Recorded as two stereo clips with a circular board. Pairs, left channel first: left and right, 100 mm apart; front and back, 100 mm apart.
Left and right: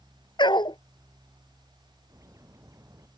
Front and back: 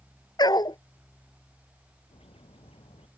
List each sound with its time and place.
0.4 s a dog barking: 50° left
2.1 s a bird: 30° right